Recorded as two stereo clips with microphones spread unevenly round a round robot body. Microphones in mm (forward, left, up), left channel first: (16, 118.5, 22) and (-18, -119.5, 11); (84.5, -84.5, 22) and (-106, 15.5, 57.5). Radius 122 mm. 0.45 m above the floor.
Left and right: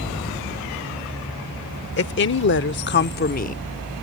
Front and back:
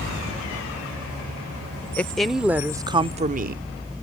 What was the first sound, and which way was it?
A woman speaking, 50° left.